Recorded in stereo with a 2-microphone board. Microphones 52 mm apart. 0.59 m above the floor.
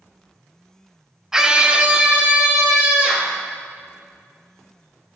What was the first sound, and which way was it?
A scream, 10° right (ahead or behind).